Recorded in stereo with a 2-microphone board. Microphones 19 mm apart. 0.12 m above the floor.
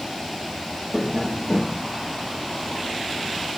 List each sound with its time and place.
0.9 s tapping: 10° left (ahead or behind), 9.5 m